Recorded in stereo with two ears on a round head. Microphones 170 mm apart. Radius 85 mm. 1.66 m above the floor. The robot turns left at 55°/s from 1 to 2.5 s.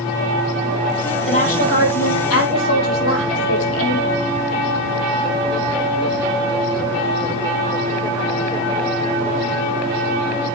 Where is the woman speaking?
145° left, 5 m; by 4.3 s 75° left, 5 m.